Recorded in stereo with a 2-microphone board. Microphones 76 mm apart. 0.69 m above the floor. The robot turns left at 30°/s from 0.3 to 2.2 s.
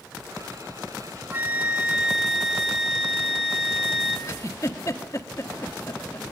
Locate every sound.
1.3 s a flute: 25° right (ahead or behind), 1.0 m; by 4.2 s 5° right (ahead or behind), 1.0 m
4.3 s a giggle: 40° left (ahead or behind), 1.5 m